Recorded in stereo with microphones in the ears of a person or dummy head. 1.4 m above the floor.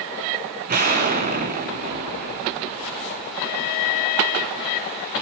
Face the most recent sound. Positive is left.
turn(degrees=-50)  # may be behind; listen again after turning